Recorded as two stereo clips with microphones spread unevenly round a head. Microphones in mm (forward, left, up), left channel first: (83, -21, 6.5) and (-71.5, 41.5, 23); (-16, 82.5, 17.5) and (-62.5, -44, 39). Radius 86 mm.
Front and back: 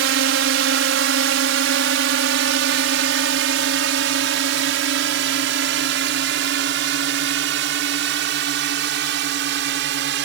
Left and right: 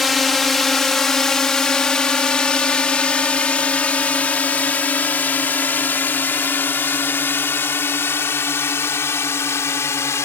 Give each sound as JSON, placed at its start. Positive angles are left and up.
{"t": 0.0, "sound": "a drone", "azimuth_deg": 160}